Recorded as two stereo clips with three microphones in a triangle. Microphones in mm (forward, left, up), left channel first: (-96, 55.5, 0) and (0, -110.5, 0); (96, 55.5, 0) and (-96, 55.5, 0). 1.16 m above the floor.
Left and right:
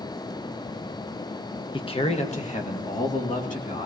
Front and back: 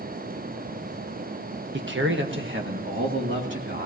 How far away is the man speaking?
About 1.0 m.